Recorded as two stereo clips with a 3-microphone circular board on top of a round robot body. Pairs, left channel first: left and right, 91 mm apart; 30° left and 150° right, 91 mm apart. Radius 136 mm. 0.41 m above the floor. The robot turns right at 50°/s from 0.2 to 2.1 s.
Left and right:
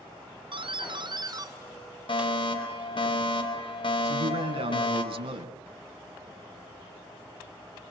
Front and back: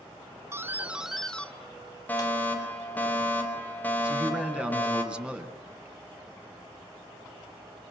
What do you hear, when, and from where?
0.5 s a doorbell: 95° right, 3 m; by 3.1 s 15° right, 3 m
2.1 s a fire alarm: 100° left, 4.5 m
4.0 s a man speaking: 70° right, 4.5 m